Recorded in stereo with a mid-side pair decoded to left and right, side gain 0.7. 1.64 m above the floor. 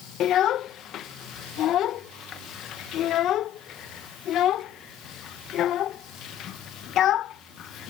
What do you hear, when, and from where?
0.2 s a child speaking: 50° left